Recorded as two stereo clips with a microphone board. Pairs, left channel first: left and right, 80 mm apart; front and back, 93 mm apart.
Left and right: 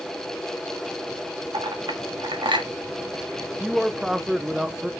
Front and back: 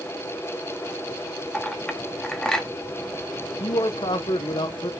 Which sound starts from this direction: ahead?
A man speaking, at 3.6 s.